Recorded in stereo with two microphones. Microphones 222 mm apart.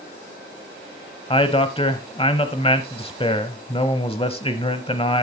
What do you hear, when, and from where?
1.3 s a man speaking: 25° left (ahead or behind), 1.0 m